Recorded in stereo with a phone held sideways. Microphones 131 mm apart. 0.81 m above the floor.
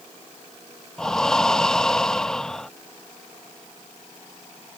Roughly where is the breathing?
Centre.